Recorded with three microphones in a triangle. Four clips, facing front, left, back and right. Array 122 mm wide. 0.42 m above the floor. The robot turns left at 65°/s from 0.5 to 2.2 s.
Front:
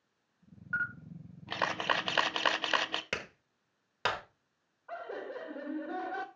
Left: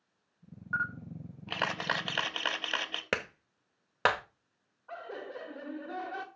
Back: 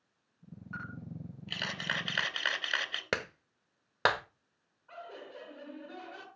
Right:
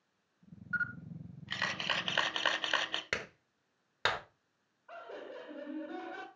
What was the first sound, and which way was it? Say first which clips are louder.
A camera shutter: left 3 dB, front 7 dB; 90° left.